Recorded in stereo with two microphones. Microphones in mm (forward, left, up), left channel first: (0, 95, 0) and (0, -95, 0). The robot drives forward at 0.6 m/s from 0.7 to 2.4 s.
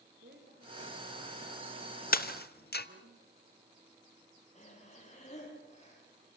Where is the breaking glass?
50° left (ahead or behind), 0.9 m; by 2.9 s 60° left (ahead or behind), 0.9 m.